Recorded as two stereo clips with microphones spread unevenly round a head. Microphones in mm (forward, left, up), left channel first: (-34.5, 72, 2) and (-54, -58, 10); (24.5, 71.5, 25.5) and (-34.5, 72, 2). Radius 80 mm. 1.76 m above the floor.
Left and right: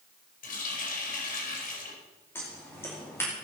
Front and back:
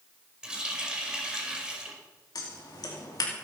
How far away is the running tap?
About 5 m.